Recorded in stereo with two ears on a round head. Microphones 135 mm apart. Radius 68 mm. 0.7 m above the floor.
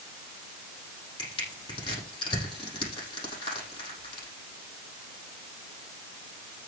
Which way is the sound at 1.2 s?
35° left (ahead or behind).